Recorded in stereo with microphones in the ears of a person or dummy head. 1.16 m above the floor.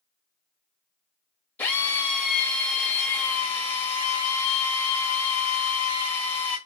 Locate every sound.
1.6 s a drill: 10° left (ahead or behind), 1.0 m